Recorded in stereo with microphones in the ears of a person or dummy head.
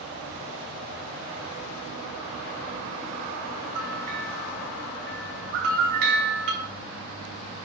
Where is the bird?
70° right (ahead or behind), 4 m.